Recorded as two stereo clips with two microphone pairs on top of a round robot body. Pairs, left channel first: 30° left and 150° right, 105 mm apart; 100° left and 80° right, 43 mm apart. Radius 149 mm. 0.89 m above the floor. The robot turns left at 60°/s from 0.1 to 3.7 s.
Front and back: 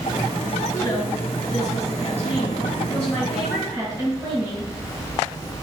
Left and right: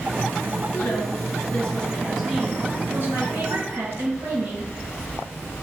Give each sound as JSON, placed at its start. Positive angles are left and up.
{"t": 0.7, "sound": "a woman speaking", "azimuth_deg": 90, "distance_m": 6.0}